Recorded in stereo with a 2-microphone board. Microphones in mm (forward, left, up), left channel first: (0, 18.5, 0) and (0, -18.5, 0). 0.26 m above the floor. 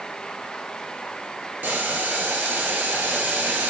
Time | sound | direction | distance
1.6 | boiling | 70° right (ahead or behind) | 0.6 m